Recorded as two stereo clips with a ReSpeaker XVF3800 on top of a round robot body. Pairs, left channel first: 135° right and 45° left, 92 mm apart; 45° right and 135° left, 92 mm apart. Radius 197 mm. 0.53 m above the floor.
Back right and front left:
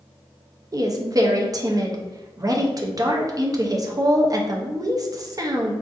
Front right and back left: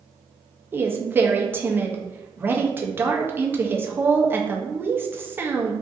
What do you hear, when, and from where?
0.7 s a woman speaking: 75° left, 0.7 m